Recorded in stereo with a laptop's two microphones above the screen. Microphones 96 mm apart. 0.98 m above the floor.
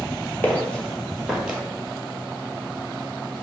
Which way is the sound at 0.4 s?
20° left (ahead or behind).